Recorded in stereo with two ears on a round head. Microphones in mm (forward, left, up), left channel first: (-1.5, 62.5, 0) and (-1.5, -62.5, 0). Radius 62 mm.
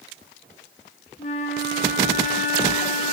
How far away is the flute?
About 1.1 m.